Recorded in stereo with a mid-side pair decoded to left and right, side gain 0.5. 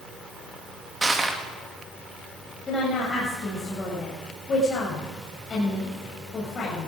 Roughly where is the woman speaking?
Ahead left.